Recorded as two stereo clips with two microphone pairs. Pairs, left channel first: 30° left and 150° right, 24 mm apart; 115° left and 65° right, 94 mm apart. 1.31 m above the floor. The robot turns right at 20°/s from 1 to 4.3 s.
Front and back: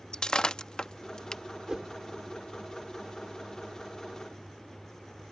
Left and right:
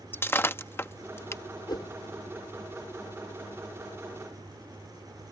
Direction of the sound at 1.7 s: 155° left.